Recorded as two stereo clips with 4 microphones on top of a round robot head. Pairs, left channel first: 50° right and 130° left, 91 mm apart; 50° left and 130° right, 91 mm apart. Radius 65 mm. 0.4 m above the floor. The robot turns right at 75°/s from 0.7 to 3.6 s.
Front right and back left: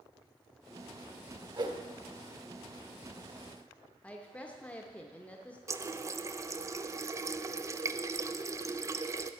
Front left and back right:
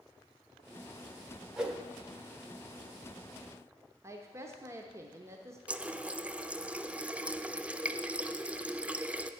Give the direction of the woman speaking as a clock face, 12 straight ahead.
4 o'clock.